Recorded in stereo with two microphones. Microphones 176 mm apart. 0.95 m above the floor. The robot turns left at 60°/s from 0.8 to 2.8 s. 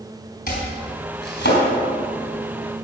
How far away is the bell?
No bell in this recording.